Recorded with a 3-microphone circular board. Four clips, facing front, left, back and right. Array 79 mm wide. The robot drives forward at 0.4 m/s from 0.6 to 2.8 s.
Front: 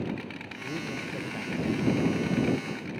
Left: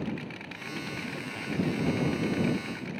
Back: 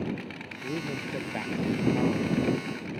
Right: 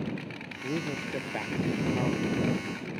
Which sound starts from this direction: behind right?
A man speaking, at 0.6 s.